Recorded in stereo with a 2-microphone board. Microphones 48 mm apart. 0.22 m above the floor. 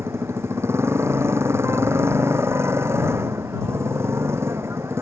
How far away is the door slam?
I don't hear a door slam.